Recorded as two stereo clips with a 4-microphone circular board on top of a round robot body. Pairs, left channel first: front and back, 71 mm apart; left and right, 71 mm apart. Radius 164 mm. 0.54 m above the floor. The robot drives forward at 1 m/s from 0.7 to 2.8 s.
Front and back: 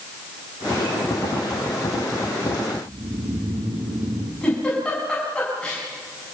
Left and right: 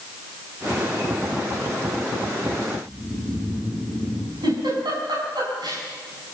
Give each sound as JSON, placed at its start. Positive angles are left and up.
{"t": 2.8, "sound": "snoring", "azimuth_deg": -170, "distance_m": 4.0}
{"t": 4.4, "sound": "a giggle", "azimuth_deg": -75, "distance_m": 7.5}